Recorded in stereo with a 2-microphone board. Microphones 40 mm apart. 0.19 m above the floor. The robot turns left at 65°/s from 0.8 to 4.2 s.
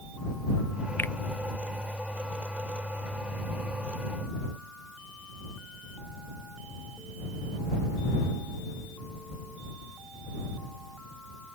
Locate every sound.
1.0 s a finger snap: 55° left (ahead or behind); by 1.1 s 45° left (ahead or behind)